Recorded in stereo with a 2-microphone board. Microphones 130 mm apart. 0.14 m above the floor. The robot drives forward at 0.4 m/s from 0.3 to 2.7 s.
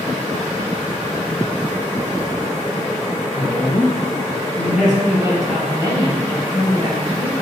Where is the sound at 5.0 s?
30° right (ahead or behind), 1.3 m.